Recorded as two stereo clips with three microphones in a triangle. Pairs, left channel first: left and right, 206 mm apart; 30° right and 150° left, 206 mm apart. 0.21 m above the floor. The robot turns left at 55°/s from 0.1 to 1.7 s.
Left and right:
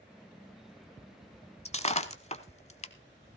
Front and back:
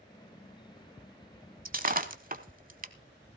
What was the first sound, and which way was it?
Breaking glass, 135° left.